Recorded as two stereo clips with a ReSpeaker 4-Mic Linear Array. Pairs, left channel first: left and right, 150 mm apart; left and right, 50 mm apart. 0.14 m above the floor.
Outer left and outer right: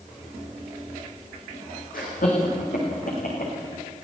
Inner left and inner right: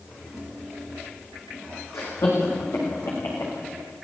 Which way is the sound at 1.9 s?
75° left (ahead or behind).